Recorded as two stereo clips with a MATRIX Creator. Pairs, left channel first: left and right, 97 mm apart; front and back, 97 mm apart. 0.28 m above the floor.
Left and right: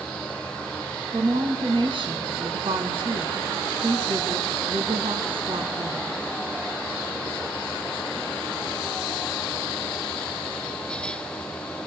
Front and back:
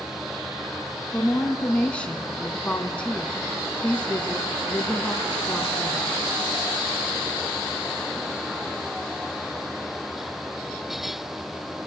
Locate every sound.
1.1 s a woman speaking: 75° right, 3 m